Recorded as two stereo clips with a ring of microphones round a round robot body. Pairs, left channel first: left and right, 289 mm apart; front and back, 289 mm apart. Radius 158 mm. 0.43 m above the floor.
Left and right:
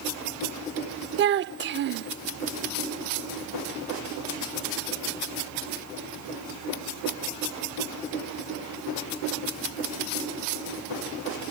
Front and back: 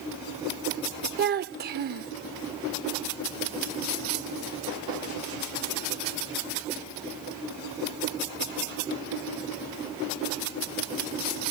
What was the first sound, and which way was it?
A child speaking, 130° right.